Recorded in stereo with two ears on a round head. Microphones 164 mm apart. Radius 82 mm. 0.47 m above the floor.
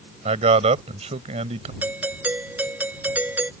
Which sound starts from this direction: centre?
A doorbell, at 1.8 s.